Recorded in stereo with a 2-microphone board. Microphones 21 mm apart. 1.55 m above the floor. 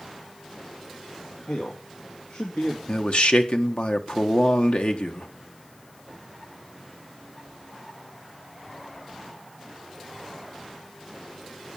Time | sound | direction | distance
1.5 | a man speaking | 80° left | 2.5 m
2.9 | a man speaking | 70° left (ahead or behind) | 1.5 m